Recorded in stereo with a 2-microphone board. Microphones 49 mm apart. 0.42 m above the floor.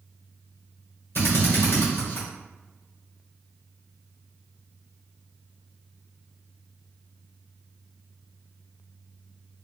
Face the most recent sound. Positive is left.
turn(degrees=50)  # may be behind; listen again after turning